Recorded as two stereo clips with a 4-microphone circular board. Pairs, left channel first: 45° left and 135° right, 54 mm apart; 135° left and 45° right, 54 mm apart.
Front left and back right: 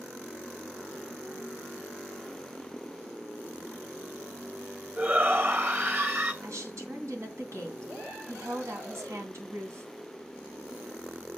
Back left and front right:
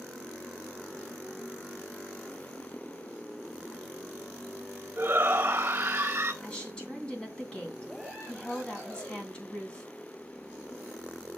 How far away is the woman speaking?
About 3 m.